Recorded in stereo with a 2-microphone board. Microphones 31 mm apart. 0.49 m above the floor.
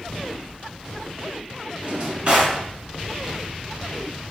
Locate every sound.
1.8 s a drawer: 40° right (ahead or behind), 0.9 m